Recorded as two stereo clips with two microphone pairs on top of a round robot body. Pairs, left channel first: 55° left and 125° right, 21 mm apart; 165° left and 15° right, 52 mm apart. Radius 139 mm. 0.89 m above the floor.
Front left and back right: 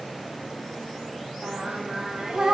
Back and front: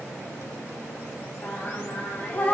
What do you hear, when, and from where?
1.4 s singing: 135° right, 1.4 m